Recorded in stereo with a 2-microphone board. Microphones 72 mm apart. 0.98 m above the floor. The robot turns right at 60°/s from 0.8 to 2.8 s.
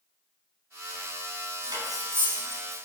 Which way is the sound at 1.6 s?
70° right (ahead or behind).